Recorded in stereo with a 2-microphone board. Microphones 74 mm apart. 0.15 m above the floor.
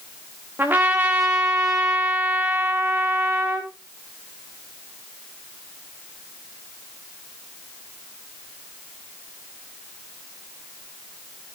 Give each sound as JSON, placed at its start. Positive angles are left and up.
{"t": 0.6, "sound": "a trumpet", "side_deg": -30, "distance_m": 3.0}